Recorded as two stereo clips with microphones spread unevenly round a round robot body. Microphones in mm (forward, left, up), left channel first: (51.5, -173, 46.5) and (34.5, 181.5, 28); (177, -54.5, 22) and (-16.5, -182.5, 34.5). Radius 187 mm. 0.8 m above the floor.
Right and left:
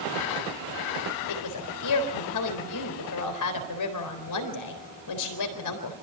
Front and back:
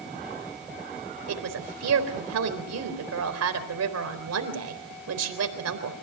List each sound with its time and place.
1.3 s a woman speaking: 135° right, 4 m